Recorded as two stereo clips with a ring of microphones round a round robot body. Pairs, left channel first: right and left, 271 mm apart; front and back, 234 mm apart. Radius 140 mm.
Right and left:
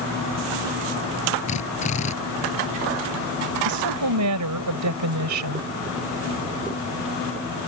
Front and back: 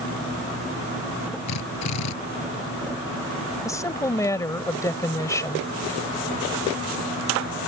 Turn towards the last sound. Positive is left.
turn(degrees=75)